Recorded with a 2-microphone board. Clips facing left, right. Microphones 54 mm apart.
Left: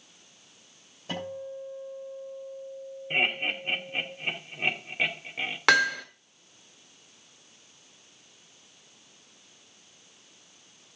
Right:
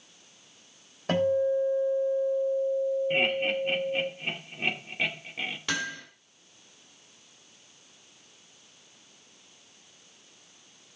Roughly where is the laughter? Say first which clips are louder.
Right 2 dB; centre.